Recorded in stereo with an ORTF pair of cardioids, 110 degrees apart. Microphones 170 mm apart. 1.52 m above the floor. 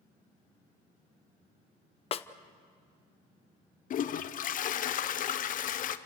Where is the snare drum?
35° left, 0.8 m.